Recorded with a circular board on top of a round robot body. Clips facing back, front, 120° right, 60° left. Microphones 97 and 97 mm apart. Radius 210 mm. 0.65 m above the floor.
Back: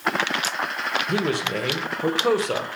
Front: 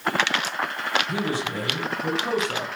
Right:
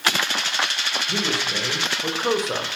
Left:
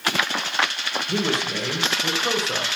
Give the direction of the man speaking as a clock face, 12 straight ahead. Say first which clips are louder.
Back 3 dB, left 3 dB; 7 o'clock.